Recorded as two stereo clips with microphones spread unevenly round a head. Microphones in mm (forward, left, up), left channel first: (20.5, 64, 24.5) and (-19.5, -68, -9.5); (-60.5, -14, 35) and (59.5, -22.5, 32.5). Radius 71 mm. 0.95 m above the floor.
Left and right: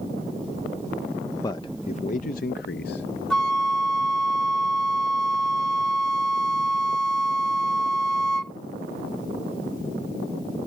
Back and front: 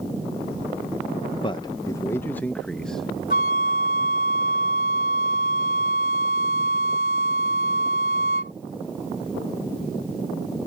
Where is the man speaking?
145° left; by 3.2 s 85° left.